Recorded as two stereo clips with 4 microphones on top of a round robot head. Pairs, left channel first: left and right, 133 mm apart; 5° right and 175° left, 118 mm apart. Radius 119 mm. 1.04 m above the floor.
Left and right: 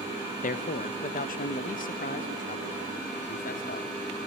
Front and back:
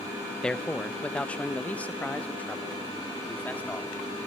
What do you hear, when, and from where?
0.4 s a man speaking: 80° left, 0.7 m; by 4.3 s 70° left, 2.5 m